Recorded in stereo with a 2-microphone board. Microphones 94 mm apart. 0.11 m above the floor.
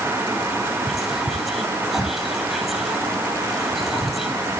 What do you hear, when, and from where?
0.9 s whispering: centre (ahead or behind), 2.5 m